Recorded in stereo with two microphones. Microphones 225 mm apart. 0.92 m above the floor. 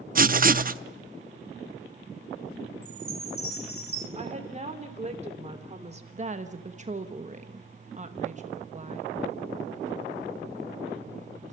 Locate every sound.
0.1 s writing: 40° right (ahead or behind), 0.6 m
2.8 s a chime: 75° left (ahead or behind), 3.5 m
4.2 s a woman speaking: 30° right (ahead or behind), 3 m
6.1 s a woman speaking: 35° right (ahead or behind), 1.1 m